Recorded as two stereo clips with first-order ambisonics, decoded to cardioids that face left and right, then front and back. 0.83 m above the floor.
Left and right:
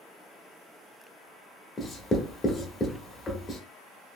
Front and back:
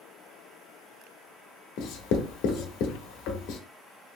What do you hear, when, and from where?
1.8 s writing: 20° left, 0.6 m